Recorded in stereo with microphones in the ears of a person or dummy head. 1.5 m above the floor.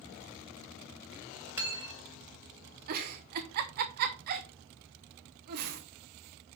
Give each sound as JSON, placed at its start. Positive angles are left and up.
{"t": 1.6, "sound": "cutlery clinking", "side_deg": -15, "distance_m": 1.8}
{"t": 2.9, "sound": "a giggle", "side_deg": -45, "distance_m": 0.8}